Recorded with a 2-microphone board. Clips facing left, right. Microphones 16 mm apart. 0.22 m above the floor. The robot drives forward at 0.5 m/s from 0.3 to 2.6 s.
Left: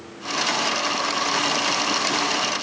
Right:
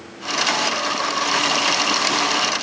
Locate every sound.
Only background noise.